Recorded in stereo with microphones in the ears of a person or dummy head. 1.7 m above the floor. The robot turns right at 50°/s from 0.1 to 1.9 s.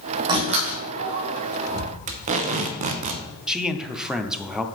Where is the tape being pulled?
45° right (ahead or behind), 0.7 m.